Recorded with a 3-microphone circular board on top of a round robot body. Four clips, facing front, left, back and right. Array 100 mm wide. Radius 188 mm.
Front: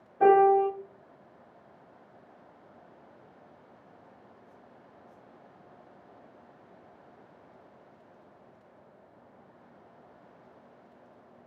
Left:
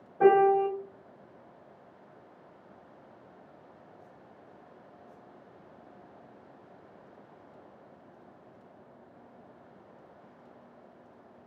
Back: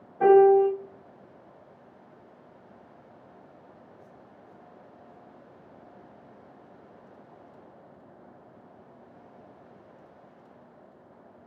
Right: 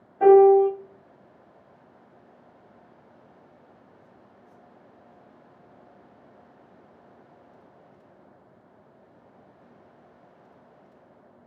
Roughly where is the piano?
Left.